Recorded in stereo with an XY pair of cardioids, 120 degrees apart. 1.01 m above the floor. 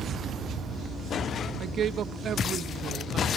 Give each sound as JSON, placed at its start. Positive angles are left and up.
{"t": 1.6, "sound": "a woman speaking", "azimuth_deg": -50, "distance_m": 0.9}